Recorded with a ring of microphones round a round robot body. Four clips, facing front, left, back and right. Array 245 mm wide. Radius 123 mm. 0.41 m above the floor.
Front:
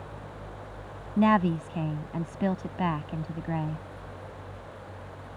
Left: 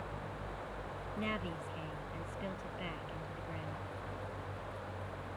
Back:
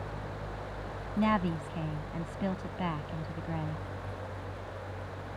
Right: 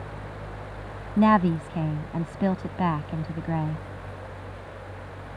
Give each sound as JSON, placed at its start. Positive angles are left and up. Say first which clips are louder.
{"t": 1.2, "sound": "a woman speaking", "louder": "right 21 dB, front 6 dB", "azimuth_deg": -65}